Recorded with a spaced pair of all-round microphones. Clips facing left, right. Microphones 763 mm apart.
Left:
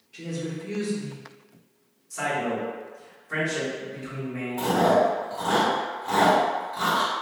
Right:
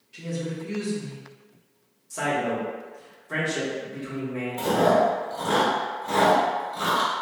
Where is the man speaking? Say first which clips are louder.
Right 2 dB; 65° right (ahead or behind), 1.8 m.